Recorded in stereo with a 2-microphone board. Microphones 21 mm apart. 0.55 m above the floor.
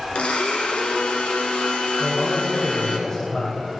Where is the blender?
80° left, 1.8 m.